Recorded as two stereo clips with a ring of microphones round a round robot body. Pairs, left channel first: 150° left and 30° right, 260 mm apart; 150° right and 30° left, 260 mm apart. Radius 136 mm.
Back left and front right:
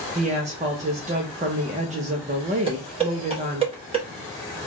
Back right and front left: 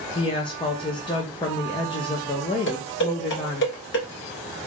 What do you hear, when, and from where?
0.1 s a woman speaking: 85° right, 0.6 m
2.7 s dishes clattering: 100° right, 1.0 m